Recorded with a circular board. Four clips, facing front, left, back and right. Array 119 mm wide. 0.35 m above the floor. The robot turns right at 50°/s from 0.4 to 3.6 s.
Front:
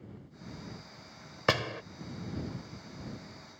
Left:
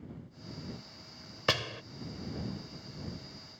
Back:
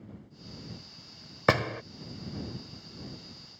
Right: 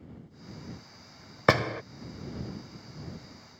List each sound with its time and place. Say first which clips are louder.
1.5 s a door slam: right 9 dB, back 4 dB; 115° right; by 1.8 s 100° right